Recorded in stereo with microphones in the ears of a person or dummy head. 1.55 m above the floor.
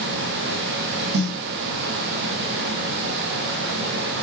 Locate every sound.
1.1 s a snare drum: 65° right (ahead or behind), 0.6 m